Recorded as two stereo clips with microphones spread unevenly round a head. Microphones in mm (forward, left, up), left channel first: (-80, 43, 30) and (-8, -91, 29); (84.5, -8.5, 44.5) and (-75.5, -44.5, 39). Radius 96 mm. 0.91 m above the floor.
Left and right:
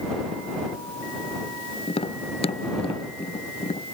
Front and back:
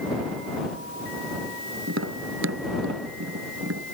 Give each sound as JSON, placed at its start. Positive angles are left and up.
{"t": 1.9, "sound": "tapping", "azimuth_deg": 170}